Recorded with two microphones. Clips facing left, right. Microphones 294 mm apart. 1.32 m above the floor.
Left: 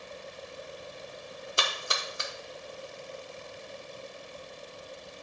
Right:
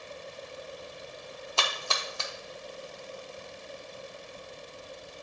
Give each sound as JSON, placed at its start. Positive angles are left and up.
{"t": 1.6, "sound": "a splash", "side_deg": 20, "distance_m": 1.1}